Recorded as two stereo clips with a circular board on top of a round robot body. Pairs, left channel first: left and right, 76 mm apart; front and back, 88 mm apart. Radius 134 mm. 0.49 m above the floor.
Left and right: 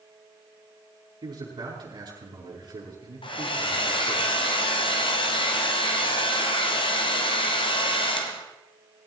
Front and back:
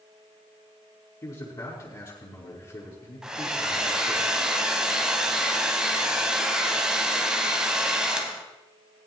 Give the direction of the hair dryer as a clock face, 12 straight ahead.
9 o'clock.